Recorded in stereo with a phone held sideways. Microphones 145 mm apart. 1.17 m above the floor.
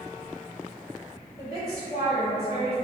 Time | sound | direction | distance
1.4 | a woman speaking | 40° left (ahead or behind) | 1.6 m